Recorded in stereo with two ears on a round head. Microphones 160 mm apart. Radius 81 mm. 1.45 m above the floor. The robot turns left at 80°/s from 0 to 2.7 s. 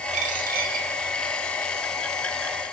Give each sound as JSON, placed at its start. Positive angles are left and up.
{"t": 0.1, "sound": "a dropped coin", "azimuth_deg": -50, "distance_m": 1.1}